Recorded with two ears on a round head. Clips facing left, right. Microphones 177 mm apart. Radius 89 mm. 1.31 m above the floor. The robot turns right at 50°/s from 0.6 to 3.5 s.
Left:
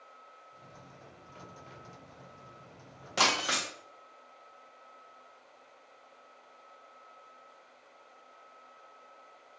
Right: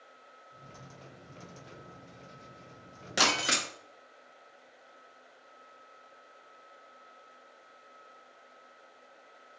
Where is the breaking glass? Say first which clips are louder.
Right 1 dB; 15° right (ahead or behind), 0.5 m; by 3.7 s 30° right (ahead or behind), 0.5 m.